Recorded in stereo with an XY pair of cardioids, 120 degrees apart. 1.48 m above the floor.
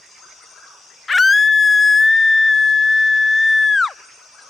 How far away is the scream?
About 0.7 m.